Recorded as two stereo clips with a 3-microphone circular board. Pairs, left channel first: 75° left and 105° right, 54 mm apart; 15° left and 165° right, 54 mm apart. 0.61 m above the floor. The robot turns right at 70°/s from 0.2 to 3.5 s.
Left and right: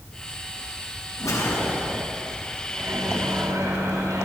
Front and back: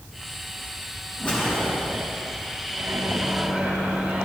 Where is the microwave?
150° right, 3 m; by 4.2 s 95° right, 3 m.